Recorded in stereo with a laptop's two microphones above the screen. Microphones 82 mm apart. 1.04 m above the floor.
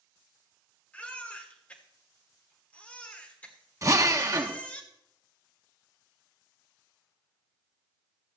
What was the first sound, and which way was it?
A baby crying, 15° left (ahead or behind).